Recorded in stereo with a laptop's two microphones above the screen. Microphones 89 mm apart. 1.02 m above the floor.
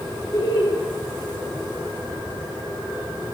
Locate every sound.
0.3 s laughter: 55° left (ahead or behind), 2.5 m